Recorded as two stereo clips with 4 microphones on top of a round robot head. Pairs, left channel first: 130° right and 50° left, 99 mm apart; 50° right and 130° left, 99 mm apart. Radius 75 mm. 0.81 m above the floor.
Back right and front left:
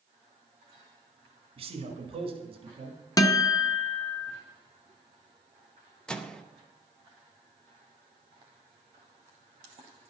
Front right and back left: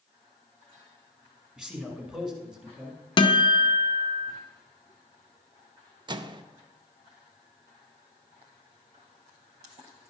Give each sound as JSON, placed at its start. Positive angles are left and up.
{"t": 1.6, "sound": "a man speaking", "azimuth_deg": 45, "distance_m": 1.8}
{"t": 3.2, "sound": "a guitar", "azimuth_deg": -80, "distance_m": 0.8}
{"t": 6.1, "sound": "a microwave", "azimuth_deg": 150, "distance_m": 0.7}